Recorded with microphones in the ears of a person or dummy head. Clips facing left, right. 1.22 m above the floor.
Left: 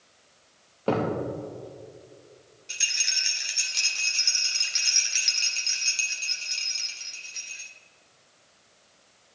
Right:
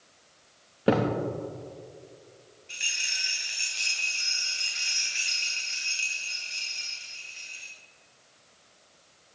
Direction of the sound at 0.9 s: 20° right (ahead or behind).